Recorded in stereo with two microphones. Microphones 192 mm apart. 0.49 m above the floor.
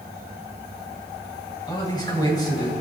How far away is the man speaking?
About 2.5 m.